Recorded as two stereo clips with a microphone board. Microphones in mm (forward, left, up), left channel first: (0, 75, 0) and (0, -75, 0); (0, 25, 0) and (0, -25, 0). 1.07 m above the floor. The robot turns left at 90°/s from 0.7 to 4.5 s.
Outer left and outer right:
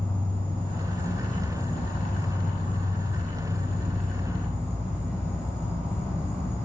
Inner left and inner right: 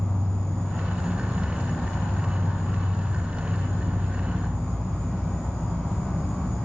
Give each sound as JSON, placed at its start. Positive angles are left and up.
{"t": 0.0, "sound": "an insect", "azimuth_deg": 165, "distance_m": 1.6}